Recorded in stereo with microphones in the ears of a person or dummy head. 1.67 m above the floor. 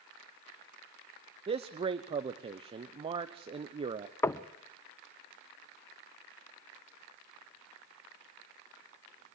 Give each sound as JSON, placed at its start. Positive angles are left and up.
{"t": 1.5, "sound": "a man speaking", "side_deg": -25, "distance_m": 0.8}
{"t": 4.2, "sound": "knocking", "side_deg": 15, "distance_m": 0.6}